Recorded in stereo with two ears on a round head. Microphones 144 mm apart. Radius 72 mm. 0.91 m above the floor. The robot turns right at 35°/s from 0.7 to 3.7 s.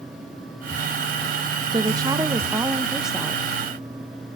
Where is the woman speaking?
55° right, 0.6 m; by 3.5 s 10° left, 0.6 m.